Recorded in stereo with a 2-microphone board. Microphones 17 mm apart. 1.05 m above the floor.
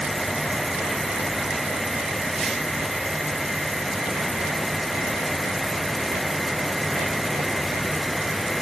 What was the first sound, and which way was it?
Only background noise.